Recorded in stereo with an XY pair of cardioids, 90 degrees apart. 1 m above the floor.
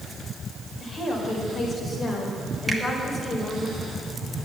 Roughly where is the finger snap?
Ahead.